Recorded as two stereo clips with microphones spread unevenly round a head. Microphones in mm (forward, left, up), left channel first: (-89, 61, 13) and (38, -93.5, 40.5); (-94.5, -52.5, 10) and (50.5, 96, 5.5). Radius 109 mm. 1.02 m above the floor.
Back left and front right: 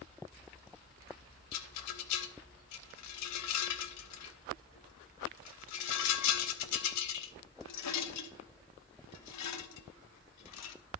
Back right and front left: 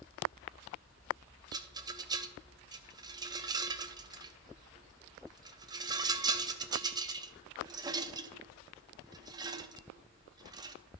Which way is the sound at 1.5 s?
115° left.